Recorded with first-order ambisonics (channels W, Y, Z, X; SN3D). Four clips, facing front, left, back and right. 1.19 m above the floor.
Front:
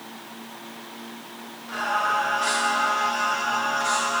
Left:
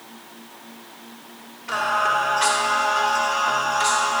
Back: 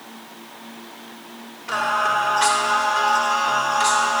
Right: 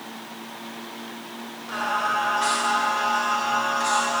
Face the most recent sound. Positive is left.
turn(degrees=140)